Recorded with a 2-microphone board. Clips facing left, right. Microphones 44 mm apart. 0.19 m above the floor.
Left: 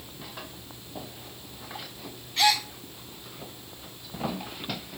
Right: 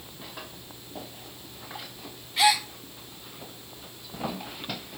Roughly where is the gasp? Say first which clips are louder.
Right 1 dB; centre.